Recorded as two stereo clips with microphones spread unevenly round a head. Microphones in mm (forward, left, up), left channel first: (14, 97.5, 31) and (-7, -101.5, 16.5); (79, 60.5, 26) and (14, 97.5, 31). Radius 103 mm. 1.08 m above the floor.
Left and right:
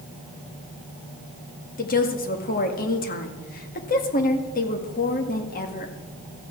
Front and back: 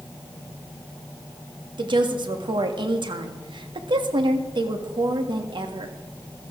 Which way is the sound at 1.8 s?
135° left.